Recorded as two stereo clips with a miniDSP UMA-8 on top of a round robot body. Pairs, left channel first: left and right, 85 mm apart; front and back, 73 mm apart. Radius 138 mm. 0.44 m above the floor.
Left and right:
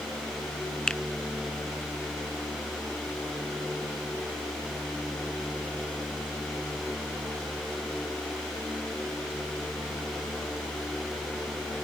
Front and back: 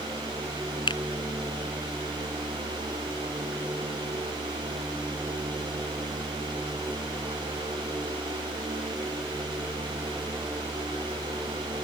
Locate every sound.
0.9 s a finger snap: 10° left